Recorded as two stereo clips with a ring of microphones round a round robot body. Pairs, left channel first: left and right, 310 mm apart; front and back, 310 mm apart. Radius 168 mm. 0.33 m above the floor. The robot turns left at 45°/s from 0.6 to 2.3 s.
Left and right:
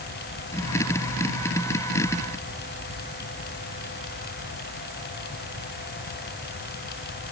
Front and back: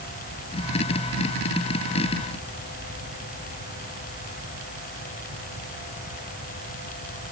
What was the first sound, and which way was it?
Only background noise.